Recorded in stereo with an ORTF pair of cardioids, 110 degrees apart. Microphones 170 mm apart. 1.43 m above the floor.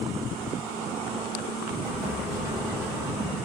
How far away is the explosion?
About 0.9 m.